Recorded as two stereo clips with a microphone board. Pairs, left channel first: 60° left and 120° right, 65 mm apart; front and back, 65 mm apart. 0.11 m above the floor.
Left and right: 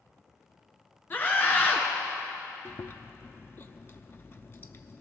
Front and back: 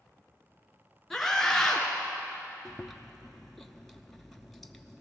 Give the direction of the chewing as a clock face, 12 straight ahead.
9 o'clock.